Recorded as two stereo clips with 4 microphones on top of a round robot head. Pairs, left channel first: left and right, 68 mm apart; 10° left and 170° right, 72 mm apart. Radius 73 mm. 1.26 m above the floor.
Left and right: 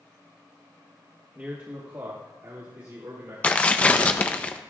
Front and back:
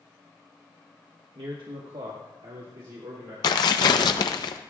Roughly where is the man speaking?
Behind.